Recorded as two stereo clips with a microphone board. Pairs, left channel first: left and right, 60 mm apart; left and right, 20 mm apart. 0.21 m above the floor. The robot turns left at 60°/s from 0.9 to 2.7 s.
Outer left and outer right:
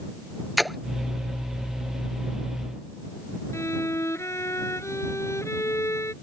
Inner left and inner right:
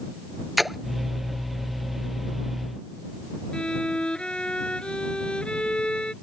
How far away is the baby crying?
No baby crying in this recording.